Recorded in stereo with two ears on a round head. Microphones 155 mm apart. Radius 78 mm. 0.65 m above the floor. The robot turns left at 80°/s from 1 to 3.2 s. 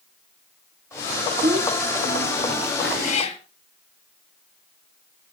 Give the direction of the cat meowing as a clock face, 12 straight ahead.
10 o'clock.